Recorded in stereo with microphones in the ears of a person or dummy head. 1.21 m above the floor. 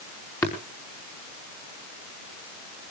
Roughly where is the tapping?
Centre.